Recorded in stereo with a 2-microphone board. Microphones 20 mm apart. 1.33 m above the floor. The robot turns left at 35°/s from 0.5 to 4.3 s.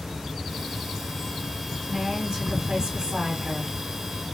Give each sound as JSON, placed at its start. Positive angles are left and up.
{"t": 1.9, "sound": "a woman speaking", "azimuth_deg": -45, "distance_m": 1.5}